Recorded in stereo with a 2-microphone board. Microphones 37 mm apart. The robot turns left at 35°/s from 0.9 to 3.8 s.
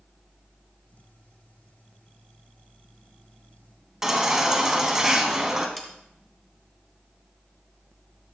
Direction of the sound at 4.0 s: 15° right (ahead or behind).